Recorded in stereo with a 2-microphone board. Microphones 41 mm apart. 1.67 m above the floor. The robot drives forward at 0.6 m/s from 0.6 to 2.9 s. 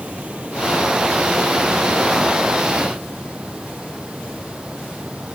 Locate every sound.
0.0 s running water: 30° right (ahead or behind); by 5.4 s 25° right (ahead or behind)